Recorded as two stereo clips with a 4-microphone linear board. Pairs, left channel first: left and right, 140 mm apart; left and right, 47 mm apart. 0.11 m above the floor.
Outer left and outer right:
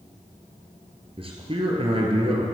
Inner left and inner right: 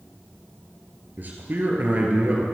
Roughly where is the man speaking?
Right.